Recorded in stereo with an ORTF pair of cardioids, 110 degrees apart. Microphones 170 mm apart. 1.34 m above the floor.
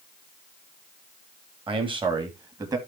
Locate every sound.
1.7 s a man speaking: 30° right, 3.5 m; by 2.8 s 20° right, 3 m